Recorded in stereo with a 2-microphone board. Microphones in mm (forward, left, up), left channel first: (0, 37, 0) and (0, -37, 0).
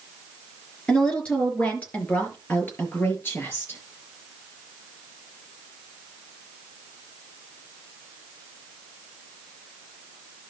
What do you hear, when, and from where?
0.9 s a woman speaking: 15° left (ahead or behind), 4 m; by 3.8 s 35° left (ahead or behind), 5 m